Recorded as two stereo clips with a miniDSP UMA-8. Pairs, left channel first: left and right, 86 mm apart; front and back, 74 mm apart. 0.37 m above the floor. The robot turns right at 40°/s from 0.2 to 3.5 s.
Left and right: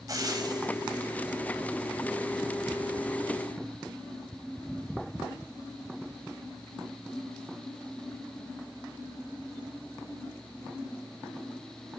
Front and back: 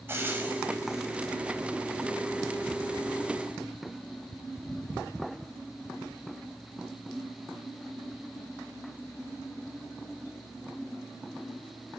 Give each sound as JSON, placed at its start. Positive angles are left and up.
{"t": 0.1, "sound": "frying", "azimuth_deg": -125, "distance_m": 2.5}